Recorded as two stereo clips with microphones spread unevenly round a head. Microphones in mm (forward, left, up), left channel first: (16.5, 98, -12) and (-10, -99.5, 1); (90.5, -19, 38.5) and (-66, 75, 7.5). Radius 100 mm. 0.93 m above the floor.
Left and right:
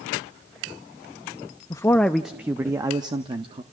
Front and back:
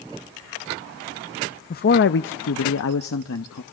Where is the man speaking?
10° left, 0.6 m; by 3.6 s 35° right, 1.4 m.